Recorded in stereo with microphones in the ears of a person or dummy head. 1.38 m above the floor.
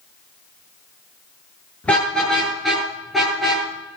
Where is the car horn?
15° left (ahead or behind), 8.5 m; by 3.6 s 5° right (ahead or behind), 9 m.